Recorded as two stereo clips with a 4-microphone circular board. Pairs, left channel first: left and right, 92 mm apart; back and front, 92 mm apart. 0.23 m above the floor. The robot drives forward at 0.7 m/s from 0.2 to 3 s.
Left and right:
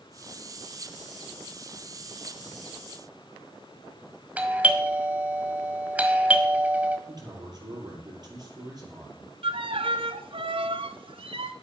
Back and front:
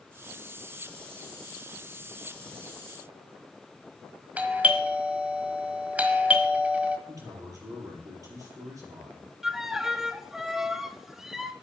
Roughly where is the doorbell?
Ahead right.